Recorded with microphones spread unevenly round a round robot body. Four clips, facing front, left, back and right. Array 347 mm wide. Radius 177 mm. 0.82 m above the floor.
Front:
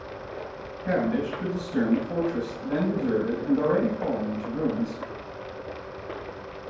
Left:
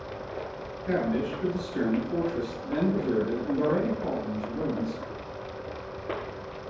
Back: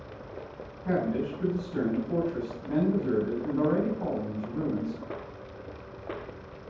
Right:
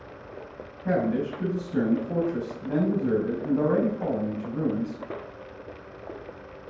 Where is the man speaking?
85° right, 5 m.